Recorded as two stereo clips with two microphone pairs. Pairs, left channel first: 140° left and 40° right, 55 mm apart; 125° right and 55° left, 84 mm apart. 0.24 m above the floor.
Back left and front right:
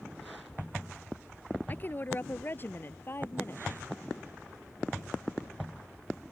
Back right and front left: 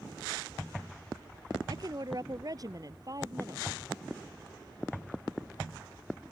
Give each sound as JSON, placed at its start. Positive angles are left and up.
{"t": 1.7, "sound": "a woman speaking", "azimuth_deg": 90}